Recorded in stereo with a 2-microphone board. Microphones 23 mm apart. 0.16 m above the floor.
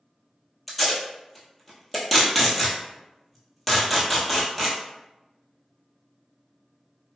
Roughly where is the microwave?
I don't hear a microwave.